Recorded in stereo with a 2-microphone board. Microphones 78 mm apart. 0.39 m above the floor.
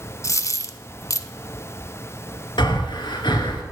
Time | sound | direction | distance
0.2 | a dropped coin | 45° left (ahead or behind) | 0.5 m
2.6 | breathing | 85° left | 1.3 m